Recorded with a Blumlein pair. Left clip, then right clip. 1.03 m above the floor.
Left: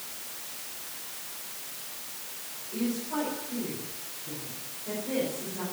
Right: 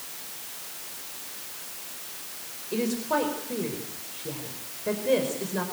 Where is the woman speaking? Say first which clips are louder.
Right 6 dB; 55° right, 5 m.